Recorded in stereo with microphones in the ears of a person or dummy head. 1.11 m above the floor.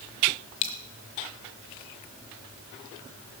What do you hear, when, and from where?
0.6 s a dropped coin: 35° left (ahead or behind), 1.1 m